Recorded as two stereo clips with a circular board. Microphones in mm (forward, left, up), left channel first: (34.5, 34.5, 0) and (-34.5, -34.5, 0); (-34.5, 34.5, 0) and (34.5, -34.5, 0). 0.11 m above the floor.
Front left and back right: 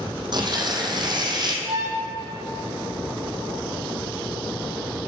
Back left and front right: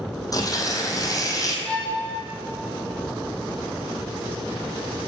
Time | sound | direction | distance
0.3 | tearing paper | 175° right | 1.8 m
1.6 | a violin | 150° right | 3.5 m